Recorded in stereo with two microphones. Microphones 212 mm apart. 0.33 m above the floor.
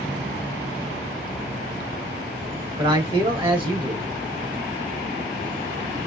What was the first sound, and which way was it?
A man speaking, 25° right (ahead or behind).